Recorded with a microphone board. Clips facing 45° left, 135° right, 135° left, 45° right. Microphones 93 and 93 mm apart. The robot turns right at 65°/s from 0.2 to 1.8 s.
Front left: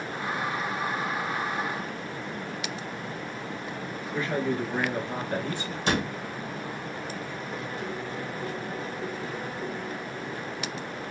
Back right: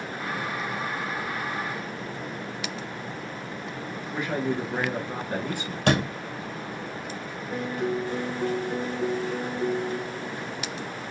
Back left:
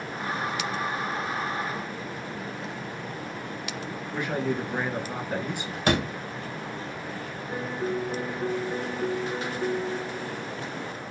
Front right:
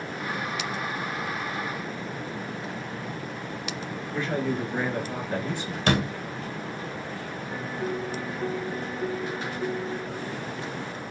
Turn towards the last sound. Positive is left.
turn(degrees=-155)